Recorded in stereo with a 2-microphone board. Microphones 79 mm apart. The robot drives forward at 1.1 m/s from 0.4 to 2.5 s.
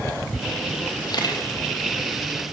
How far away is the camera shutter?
About 5 m.